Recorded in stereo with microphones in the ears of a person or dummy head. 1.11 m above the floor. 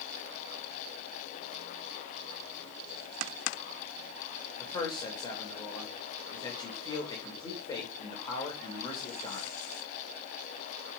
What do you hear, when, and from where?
4.6 s a man speaking: 25° left (ahead or behind), 3.5 m